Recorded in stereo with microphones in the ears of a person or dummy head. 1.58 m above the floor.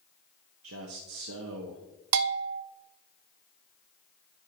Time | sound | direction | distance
0.6 | a man speaking | 65° right (ahead or behind) | 0.8 m
2.1 | a bell | 80° right | 0.5 m